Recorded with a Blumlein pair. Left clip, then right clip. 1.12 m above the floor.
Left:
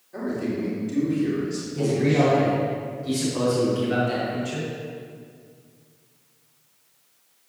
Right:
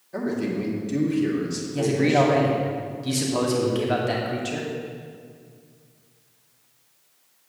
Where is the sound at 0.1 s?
15° right, 2 m.